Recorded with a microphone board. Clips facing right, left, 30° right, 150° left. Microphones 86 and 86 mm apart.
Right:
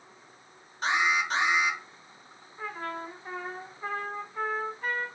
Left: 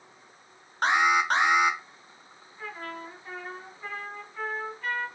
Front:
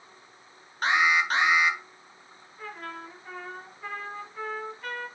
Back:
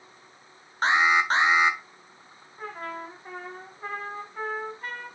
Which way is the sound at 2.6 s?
155° right.